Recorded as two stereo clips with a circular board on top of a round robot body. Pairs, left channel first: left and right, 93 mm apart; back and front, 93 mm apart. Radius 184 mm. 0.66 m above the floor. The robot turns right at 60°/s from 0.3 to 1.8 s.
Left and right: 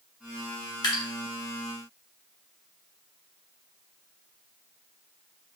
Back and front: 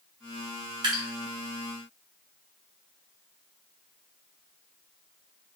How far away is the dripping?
About 0.6 m.